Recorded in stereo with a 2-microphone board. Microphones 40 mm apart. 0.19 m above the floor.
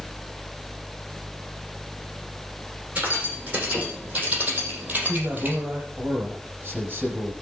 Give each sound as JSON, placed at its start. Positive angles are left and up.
{"t": 3.0, "sound": "keys jangling", "side_deg": -35, "distance_m": 7.0}
{"t": 5.0, "sound": "a man speaking", "side_deg": -45, "distance_m": 5.5}